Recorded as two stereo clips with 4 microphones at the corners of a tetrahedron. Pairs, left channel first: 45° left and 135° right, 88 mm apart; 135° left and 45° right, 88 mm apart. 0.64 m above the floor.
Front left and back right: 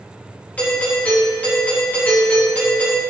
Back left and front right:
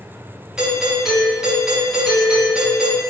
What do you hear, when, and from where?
0.6 s a doorbell: 15° left, 1.0 m